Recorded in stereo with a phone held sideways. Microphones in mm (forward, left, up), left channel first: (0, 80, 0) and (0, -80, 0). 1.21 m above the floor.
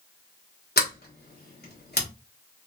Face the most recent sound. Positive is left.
turn(degrees=75)  # may be behind; listen again after turning